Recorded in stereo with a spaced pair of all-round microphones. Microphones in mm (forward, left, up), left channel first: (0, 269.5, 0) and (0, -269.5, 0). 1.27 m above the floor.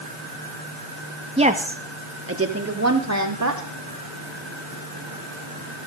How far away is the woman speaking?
About 1.8 m.